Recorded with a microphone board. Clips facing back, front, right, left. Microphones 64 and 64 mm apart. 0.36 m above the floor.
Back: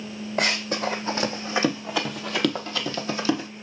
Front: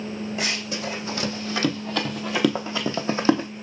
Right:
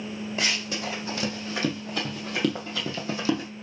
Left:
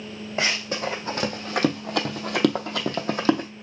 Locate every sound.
0.4 s running footsteps: 145° left, 1.2 m; by 3.5 s 50° left, 1.1 m